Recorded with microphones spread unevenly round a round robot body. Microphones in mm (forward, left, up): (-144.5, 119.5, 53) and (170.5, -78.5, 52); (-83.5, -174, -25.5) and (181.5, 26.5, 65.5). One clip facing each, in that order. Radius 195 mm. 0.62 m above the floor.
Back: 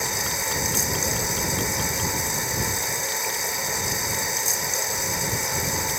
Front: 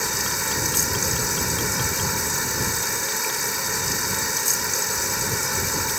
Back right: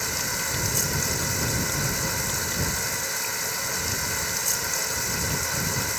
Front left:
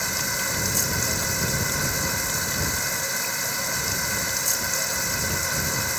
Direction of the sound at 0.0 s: 40° left.